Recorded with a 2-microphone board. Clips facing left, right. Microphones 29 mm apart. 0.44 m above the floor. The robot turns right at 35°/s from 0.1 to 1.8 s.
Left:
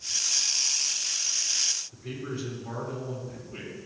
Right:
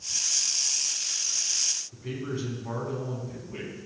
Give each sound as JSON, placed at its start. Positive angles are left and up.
{"t": 1.9, "sound": "a man speaking", "side_deg": -15, "distance_m": 3.5}